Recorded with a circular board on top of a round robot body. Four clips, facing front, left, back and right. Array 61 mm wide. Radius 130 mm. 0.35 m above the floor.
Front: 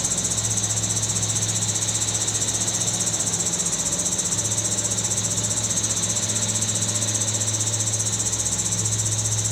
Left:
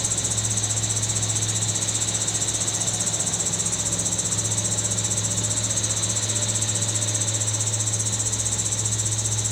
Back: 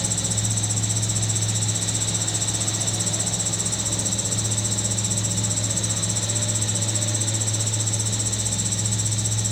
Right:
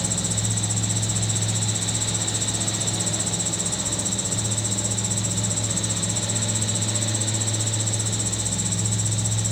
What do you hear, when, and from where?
0.0 s an insect: 30° left